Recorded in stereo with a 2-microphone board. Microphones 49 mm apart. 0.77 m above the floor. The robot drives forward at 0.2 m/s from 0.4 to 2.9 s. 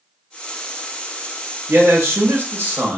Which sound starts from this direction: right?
A man speaking, at 1.7 s.